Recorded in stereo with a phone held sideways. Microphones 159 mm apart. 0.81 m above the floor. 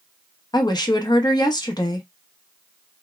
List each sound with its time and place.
0.5 s a woman speaking: 25° left (ahead or behind), 0.7 m